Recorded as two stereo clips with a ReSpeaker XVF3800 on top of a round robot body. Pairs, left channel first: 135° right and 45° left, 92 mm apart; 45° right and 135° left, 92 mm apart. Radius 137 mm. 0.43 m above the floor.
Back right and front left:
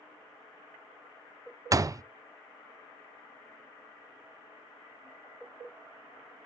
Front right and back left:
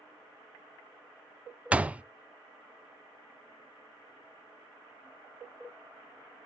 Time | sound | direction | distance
1.7 | a door slam | 65° left | 0.5 m